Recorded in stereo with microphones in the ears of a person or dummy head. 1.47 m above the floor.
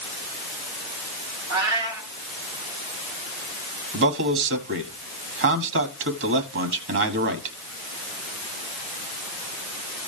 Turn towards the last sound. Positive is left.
turn(degrees=-60)  # may be behind; listen again after turning